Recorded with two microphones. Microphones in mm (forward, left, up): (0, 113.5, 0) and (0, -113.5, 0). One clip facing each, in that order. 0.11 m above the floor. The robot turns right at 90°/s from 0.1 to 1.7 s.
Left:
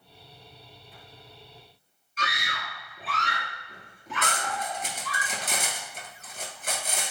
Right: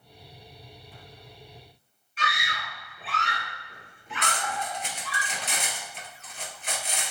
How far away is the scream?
About 2.5 m.